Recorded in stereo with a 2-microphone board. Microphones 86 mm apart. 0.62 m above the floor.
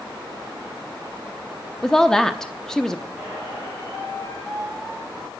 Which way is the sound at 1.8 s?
5° left (ahead or behind).